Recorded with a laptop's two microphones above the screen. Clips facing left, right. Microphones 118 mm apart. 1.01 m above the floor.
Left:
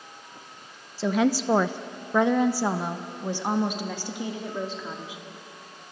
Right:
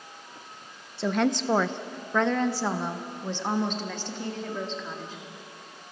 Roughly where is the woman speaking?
Centre.